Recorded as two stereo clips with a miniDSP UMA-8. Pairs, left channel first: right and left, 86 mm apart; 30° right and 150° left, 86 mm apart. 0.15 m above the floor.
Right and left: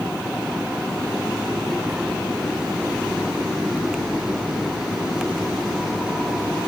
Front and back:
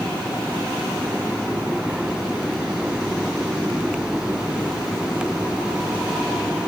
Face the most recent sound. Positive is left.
No sound to turn to.